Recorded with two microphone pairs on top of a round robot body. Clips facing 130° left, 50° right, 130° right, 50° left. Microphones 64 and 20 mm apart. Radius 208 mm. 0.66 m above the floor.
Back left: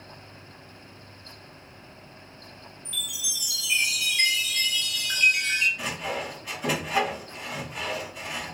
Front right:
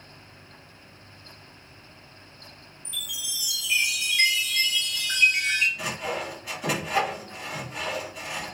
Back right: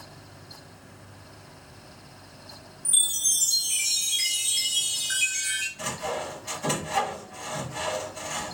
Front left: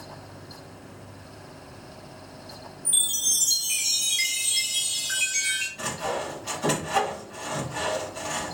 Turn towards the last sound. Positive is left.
turn(degrees=35)